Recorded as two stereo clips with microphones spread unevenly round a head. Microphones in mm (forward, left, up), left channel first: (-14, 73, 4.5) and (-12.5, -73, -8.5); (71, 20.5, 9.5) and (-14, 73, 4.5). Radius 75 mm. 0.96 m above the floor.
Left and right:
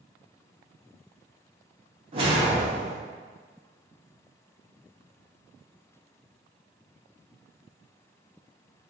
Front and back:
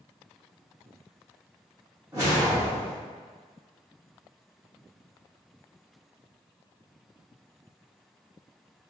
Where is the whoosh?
145° right, 0.8 m.